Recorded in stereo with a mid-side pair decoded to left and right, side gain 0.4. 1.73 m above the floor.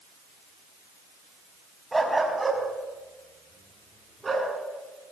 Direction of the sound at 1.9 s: 15° right.